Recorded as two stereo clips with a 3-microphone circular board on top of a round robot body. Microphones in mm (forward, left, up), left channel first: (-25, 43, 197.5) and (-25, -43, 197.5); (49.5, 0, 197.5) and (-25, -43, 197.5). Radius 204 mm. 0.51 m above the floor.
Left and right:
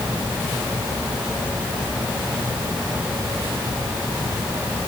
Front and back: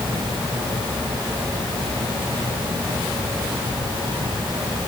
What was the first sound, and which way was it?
Only background noise.